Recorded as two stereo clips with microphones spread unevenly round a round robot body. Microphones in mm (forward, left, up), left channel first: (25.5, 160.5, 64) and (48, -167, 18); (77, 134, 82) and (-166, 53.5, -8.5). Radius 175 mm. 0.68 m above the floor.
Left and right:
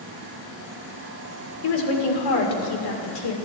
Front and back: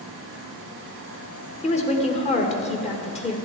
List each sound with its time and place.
1.6 s a woman speaking: 90° left, 2.5 m